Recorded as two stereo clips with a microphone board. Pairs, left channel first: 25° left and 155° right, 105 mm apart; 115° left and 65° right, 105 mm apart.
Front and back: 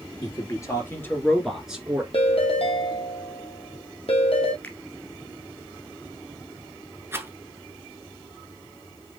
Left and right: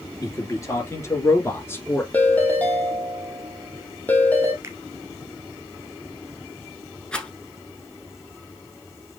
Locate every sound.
0.2 s a man speaking: 60° left, 2.5 m; by 2.0 s 160° left, 1.6 m
2.1 s a ringtone: 40° left, 1.5 m
4.6 s a finger snap: 35° right, 1.4 m
7.1 s a rattle: straight behind, 1.0 m